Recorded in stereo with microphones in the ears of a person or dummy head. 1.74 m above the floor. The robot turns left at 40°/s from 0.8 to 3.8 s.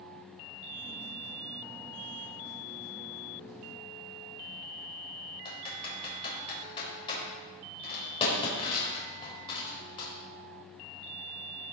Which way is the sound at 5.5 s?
30° left (ahead or behind).